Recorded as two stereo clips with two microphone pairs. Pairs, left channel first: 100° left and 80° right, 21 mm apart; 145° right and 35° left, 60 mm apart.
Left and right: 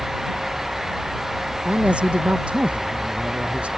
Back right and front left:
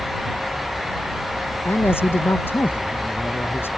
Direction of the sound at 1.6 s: 95° right.